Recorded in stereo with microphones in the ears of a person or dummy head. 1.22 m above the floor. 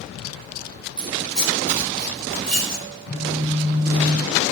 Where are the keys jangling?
Centre (ahead or behind), 4 m.